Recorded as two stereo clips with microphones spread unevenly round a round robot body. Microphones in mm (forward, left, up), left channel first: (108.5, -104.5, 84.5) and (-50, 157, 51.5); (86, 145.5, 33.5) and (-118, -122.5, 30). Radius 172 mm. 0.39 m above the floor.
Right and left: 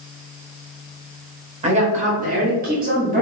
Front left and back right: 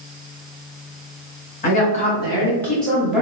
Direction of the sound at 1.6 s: 95° left.